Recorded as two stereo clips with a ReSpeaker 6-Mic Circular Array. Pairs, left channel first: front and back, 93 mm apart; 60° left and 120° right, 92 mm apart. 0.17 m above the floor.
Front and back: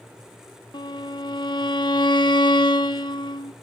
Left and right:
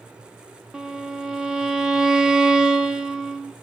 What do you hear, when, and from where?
0.7 s a violin: 35° right, 0.9 m